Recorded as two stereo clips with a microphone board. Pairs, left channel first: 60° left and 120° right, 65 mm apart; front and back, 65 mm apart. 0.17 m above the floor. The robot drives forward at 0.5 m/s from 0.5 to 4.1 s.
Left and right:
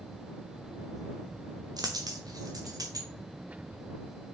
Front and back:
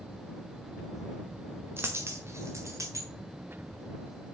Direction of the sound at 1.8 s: 125° right.